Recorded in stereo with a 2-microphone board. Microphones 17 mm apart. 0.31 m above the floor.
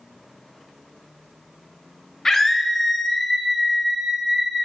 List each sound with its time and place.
2.2 s a scream: 25° left (ahead or behind), 1.0 m; by 4.6 s 35° right (ahead or behind), 1.2 m